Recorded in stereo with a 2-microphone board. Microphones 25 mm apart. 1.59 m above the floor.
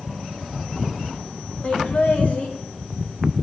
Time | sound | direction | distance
1.6 | laughter | 65° left (ahead or behind) | 3.5 m